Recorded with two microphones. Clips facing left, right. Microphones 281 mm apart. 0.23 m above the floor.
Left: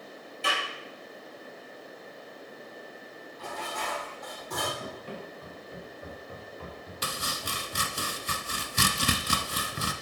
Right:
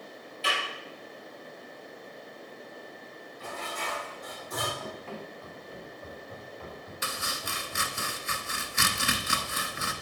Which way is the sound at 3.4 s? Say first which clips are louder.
Left 1 dB; 75° left (ahead or behind).